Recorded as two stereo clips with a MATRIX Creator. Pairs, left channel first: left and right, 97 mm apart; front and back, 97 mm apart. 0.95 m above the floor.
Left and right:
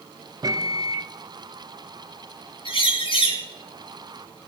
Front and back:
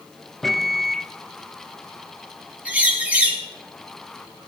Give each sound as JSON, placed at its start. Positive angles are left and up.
{"t": 0.4, "sound": "a microwave", "azimuth_deg": -90, "distance_m": 0.6}
{"t": 2.6, "sound": "a bird", "azimuth_deg": 105, "distance_m": 5.0}